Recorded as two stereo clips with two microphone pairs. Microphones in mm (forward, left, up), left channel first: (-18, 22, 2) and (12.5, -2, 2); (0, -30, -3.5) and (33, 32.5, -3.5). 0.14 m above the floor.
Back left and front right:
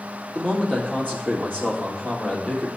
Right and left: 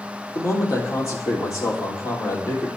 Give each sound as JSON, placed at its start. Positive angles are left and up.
{"t": 0.3, "sound": "a man speaking", "azimuth_deg": -160, "distance_m": 3.0}